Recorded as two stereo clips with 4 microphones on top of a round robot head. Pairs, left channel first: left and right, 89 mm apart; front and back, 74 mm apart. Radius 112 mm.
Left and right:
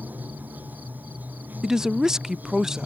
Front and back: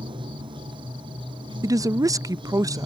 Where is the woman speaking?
175° right.